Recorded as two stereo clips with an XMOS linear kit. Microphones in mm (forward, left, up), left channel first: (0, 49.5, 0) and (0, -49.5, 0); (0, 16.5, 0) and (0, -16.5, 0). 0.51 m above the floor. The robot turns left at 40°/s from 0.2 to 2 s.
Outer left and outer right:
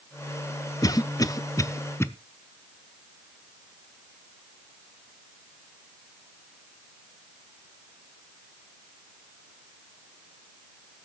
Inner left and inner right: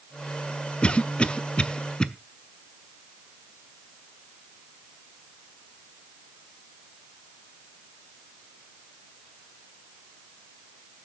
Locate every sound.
0.8 s a cough: 35° left (ahead or behind), 0.8 m; by 2.1 s 25° left (ahead or behind), 0.8 m